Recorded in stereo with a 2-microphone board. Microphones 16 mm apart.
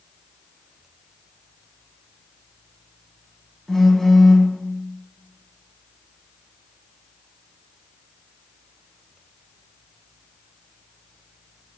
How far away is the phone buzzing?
About 0.6 m.